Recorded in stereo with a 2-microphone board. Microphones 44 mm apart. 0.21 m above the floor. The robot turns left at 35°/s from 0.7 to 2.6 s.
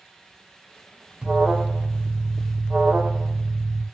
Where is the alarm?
25° right, 1.1 m; by 3.9 s 70° right, 1.1 m.